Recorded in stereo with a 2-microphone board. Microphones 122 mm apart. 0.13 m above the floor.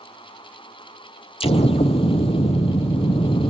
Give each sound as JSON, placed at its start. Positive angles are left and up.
{"t": 1.4, "sound": "an explosion", "side_deg": 55, "distance_m": 0.7}